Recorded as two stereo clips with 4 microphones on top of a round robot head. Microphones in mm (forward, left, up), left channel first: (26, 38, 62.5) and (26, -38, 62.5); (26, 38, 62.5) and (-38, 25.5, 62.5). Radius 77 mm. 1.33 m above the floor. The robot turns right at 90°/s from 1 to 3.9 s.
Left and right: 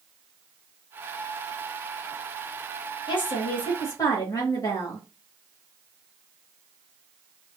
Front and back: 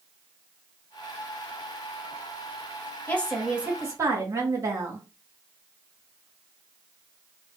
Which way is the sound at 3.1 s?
70° left.